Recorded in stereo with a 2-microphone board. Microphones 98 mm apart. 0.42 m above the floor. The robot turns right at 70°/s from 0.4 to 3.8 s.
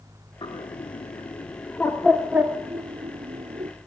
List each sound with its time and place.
0.4 s a bird: 55° left (ahead or behind), 1.3 m; by 3.7 s 75° right (ahead or behind), 1.3 m